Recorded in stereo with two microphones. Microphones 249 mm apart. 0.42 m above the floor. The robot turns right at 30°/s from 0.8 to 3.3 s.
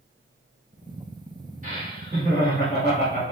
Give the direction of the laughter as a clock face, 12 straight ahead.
4 o'clock.